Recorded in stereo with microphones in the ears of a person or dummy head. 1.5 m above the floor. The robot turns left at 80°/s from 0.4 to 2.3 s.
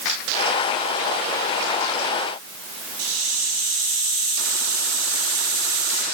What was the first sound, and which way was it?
A hiss, 75° right (ahead or behind).